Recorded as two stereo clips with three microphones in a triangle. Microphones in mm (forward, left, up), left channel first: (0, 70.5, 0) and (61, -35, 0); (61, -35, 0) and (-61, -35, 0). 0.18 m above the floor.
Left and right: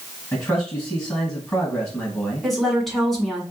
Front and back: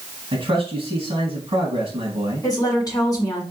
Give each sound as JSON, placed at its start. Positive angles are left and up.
{"t": 0.3, "sound": "a man speaking", "azimuth_deg": 180, "distance_m": 2.0}
{"t": 2.4, "sound": "a woman speaking", "azimuth_deg": 30, "distance_m": 1.8}